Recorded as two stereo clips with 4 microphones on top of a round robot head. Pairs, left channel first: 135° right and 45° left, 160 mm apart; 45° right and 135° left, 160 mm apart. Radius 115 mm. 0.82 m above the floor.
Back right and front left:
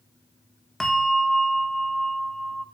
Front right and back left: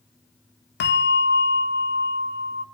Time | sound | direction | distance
0.8 | a bell | 50° right | 1.6 m